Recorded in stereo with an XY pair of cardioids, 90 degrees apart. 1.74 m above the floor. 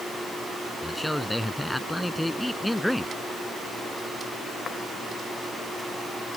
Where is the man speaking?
5° left.